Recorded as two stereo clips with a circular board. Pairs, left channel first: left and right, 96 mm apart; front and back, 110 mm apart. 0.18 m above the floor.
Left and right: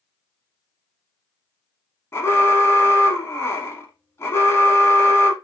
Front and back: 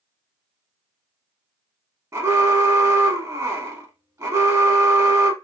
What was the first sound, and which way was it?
An alarm, 135° left.